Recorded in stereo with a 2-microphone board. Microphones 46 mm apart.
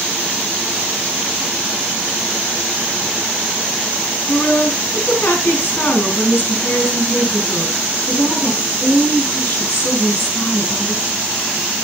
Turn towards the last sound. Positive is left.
turn(degrees=45)  # may be behind; listen again after turning